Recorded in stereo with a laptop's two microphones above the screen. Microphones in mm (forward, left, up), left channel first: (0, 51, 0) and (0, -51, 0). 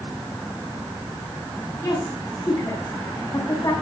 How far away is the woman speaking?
About 6.5 m.